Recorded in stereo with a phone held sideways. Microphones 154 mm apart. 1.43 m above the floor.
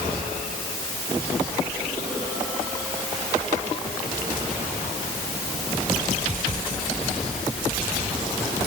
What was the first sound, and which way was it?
Only background noise.